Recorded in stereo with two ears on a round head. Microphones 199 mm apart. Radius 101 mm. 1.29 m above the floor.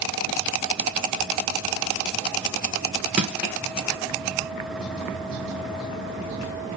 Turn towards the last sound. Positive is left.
turn(degrees=-5)  # may be behind; listen again after turning